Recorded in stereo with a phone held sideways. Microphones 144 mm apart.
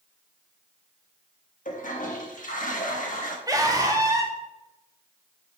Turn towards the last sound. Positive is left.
turn(degrees=-25)  # may be behind; listen again after turning